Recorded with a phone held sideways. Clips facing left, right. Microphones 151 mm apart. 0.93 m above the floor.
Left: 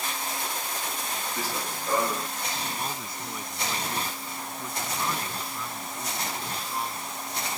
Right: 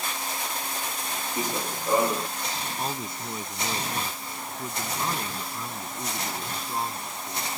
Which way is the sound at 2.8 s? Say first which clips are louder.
Right 3 dB; 25° right (ahead or behind).